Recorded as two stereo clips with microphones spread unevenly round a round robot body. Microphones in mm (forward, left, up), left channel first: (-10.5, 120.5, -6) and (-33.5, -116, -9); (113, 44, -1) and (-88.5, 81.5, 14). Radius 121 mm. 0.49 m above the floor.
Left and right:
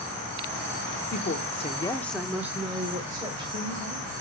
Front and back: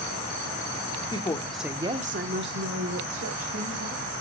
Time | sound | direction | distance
1.1 | a woman speaking | 40° left | 1.0 m